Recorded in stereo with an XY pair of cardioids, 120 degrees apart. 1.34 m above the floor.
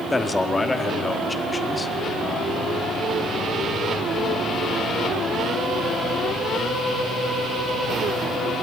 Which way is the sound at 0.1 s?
15° left.